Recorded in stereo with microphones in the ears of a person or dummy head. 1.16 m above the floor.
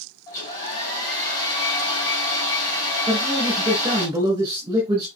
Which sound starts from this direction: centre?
A hair dryer, at 0.3 s.